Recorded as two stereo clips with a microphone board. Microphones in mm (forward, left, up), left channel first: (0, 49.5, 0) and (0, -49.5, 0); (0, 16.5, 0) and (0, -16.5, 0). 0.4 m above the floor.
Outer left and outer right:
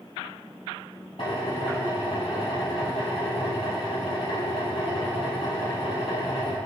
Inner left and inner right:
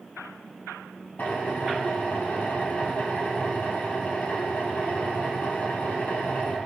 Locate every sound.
1.2 s a drill: 70° left (ahead or behind), 4.5 m